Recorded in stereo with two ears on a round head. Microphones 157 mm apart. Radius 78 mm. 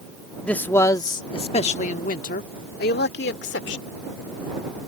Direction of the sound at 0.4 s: 5° left (ahead or behind).